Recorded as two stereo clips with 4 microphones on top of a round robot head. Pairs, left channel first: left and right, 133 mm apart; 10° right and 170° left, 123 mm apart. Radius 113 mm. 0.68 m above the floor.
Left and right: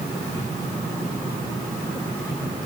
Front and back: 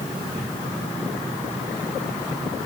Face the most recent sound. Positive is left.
No sound to turn to.